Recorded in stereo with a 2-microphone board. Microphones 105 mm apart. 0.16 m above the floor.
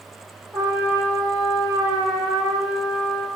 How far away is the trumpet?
About 4.5 m.